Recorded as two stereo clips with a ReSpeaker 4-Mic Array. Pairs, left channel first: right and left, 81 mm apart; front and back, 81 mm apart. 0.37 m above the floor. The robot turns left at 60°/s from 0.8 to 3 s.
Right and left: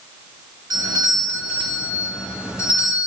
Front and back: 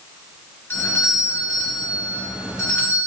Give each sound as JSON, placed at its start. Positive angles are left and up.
{"t": 0.7, "sound": "a doorbell", "azimuth_deg": 55, "distance_m": 2.5}